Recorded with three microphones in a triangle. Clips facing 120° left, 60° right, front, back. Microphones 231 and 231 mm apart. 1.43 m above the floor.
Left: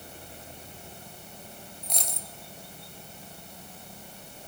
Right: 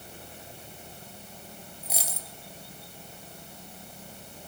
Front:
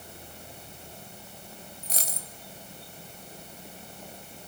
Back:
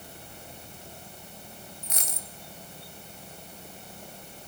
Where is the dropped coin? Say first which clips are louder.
Even, front 2 dB; 20° left, 1.4 m.